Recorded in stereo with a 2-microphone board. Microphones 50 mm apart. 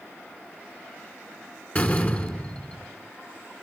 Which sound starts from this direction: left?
A door slam, at 1.8 s.